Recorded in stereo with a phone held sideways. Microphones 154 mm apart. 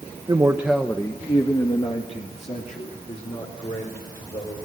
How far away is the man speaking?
About 1.1 m.